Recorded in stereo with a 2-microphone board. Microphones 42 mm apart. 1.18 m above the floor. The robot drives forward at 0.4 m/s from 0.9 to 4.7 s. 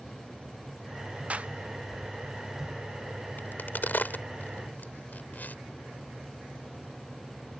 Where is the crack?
50° left (ahead or behind); by 5.5 s 45° left (ahead or behind).